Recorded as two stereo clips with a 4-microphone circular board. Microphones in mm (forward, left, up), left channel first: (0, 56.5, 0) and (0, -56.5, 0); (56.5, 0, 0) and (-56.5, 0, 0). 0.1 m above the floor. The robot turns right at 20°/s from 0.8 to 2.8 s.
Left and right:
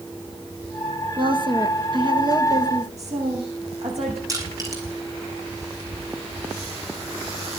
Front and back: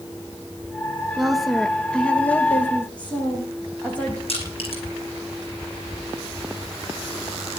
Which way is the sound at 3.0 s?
80° right.